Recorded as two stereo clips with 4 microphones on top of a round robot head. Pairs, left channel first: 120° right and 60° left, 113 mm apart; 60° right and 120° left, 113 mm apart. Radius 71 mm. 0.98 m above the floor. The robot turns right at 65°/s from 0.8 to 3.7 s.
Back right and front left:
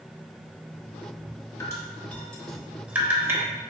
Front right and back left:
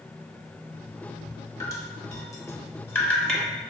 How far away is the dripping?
About 0.9 m.